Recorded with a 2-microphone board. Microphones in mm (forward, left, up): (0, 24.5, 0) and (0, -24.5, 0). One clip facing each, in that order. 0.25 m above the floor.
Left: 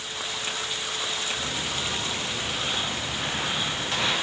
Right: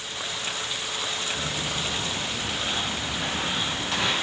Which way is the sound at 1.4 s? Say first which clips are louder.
Right 1 dB; 50° right (ahead or behind).